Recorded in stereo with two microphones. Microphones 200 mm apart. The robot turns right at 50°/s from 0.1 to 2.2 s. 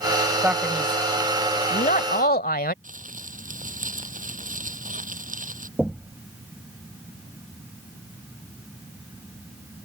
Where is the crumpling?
40° right (ahead or behind).